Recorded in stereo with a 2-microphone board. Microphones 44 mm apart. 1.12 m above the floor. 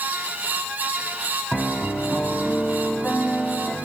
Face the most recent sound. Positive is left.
turn(degrees=15)  # may be behind; listen again after turning